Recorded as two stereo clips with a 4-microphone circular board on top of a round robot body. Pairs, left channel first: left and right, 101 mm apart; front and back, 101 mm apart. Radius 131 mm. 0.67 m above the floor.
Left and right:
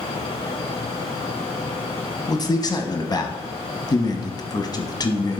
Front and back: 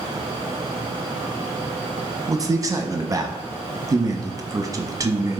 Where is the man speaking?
130° left, 1.2 m.